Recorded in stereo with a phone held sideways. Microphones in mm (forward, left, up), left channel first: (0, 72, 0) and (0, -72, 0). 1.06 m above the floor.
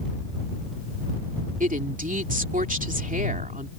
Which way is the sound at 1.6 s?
70° right (ahead or behind).